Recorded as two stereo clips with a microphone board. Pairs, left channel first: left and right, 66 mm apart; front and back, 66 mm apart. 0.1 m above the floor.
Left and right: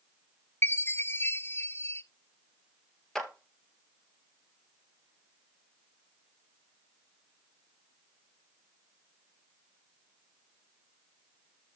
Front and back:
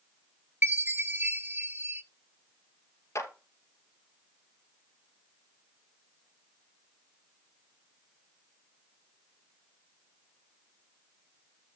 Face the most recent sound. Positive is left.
turn(degrees=10)